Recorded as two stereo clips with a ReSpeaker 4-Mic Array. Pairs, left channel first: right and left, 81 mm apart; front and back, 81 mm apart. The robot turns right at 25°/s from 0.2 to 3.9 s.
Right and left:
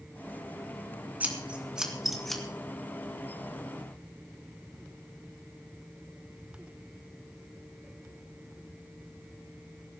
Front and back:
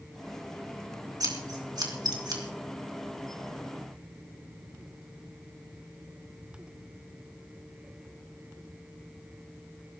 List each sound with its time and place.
1.2 s scissors: 155° left, 3 m; by 2.4 s 175° right, 3 m